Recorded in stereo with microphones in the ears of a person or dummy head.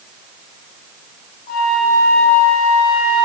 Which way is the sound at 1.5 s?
50° left (ahead or behind).